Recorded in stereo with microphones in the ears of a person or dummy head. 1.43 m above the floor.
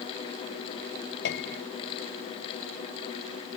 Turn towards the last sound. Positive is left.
turn(degrees=65)  # may be behind; listen again after turning